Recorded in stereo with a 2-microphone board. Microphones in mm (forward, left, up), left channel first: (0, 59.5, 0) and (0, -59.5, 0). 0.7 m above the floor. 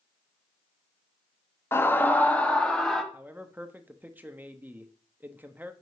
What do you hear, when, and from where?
1.7 s a scream: 20° left (ahead or behind), 0.6 m; by 3.0 s 5° left (ahead or behind), 1.1 m
3.1 s a man speaking: 15° right (ahead or behind), 0.7 m